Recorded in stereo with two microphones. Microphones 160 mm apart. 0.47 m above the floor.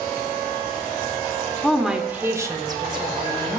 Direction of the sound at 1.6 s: 5° left (ahead or behind).